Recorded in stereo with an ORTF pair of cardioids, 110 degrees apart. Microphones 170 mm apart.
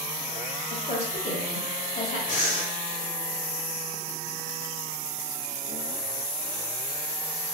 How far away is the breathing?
About 2.0 m.